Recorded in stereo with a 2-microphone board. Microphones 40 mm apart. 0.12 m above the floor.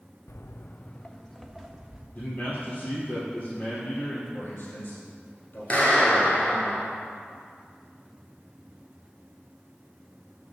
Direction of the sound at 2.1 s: 45° left (ahead or behind).